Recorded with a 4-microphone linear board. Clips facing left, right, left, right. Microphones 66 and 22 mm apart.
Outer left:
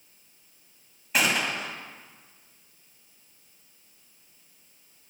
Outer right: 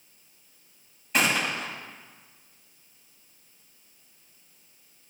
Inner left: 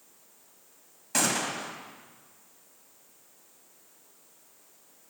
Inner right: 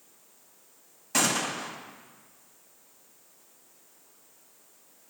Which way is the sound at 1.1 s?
5° left (ahead or behind).